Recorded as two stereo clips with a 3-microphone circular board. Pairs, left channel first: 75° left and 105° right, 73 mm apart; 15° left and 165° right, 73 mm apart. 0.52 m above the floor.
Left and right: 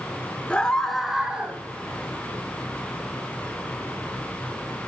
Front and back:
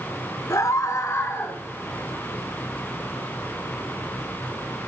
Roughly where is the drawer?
No drawer in this recording.